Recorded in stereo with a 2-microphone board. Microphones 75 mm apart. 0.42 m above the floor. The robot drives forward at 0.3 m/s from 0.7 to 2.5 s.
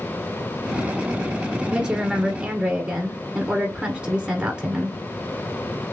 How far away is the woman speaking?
About 1.3 m.